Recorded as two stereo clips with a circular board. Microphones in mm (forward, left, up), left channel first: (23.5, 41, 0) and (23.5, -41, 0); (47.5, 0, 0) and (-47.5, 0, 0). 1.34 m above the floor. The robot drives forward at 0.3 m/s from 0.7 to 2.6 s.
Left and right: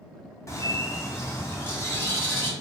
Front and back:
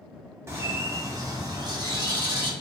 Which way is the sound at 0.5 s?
125° left.